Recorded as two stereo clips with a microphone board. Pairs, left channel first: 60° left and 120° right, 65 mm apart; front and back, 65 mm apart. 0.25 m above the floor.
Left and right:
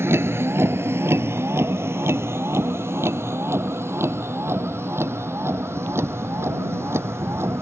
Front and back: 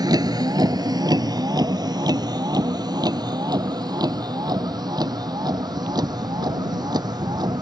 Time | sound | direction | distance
0.0 | a vehicle | 175° right | ?